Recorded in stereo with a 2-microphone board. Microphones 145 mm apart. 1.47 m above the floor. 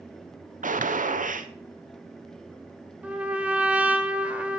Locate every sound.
0.6 s a gunshot: 65° right (ahead or behind), 0.9 m
3.0 s a trumpet: 10° right (ahead or behind), 1.3 m